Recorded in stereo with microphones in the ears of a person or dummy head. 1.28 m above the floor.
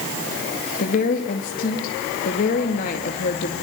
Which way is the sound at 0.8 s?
50° left (ahead or behind).